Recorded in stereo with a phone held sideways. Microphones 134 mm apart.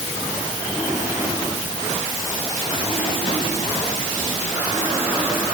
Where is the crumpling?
No crumpling in this recording.